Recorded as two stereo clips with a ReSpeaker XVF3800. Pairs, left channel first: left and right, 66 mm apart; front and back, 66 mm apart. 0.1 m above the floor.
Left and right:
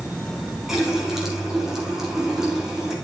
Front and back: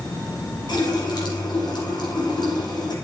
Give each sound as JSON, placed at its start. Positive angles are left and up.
{"t": 0.7, "sound": "a running tap", "azimuth_deg": -5, "distance_m": 3.0}